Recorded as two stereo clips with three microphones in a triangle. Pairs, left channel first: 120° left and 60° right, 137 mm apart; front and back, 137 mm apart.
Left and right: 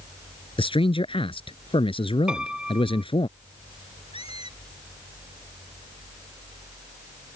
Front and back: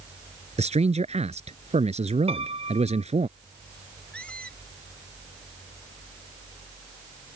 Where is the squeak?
80° left.